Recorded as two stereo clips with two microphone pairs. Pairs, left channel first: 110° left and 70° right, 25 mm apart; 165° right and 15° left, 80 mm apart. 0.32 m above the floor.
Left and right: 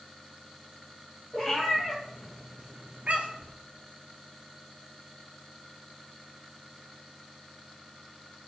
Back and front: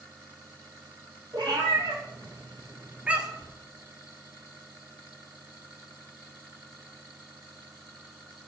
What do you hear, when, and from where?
1.3 s a cat meowing: 40° left, 1.0 m; by 3.5 s 75° right, 0.8 m